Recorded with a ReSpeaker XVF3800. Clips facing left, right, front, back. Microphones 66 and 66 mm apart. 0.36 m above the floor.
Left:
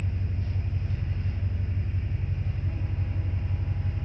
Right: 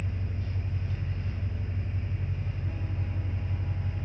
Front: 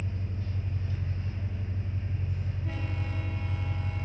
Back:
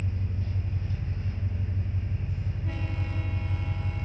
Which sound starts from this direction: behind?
An engine running, at 0.0 s.